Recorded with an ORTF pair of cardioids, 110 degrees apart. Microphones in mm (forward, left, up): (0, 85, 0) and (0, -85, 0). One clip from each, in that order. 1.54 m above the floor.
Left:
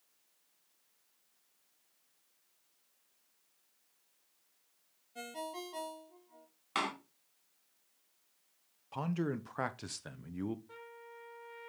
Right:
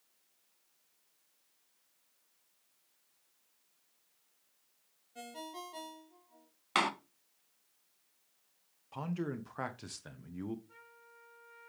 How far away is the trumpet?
About 3 m.